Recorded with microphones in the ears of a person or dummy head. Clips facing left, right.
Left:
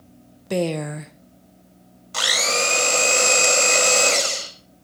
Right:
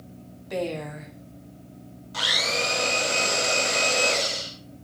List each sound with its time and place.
0.5 s a woman speaking: 60° left (ahead or behind), 1.0 m
2.1 s a blender: 65° left (ahead or behind), 5 m